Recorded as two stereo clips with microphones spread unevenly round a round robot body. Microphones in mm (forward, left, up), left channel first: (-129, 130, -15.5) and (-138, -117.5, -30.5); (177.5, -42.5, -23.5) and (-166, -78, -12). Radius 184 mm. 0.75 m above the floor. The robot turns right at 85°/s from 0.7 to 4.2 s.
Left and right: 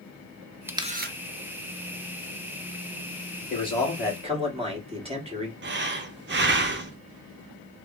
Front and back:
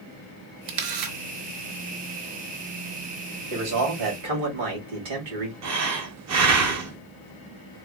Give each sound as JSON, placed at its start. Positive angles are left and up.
{"t": 0.7, "sound": "a camera shutter", "azimuth_deg": -175, "distance_m": 0.7}
{"t": 3.5, "sound": "a man speaking", "azimuth_deg": 145, "distance_m": 1.9}
{"t": 5.6, "sound": "breathing", "azimuth_deg": -130, "distance_m": 0.7}